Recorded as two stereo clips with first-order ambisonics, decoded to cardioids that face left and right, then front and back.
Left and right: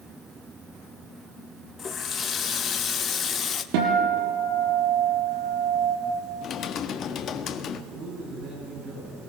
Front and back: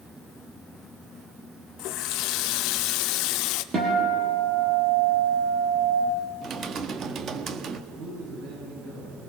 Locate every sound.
1.8 s a running tap: 25° left, 0.9 m
3.7 s a guitar: 110° right, 5 m
6.4 s typing on a keyboard: 120° left, 1.1 m
7.9 s a man speaking: 135° right, 8 m